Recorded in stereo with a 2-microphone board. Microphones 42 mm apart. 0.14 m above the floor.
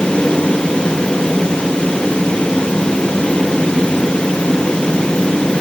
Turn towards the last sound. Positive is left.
No sound to turn to.